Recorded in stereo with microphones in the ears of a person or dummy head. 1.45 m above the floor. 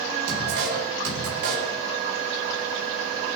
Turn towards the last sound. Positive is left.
turn(degrees=-75)  # may be behind; listen again after turning